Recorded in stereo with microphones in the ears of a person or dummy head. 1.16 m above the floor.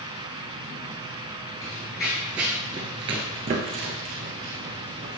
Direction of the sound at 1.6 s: 10° left (ahead or behind).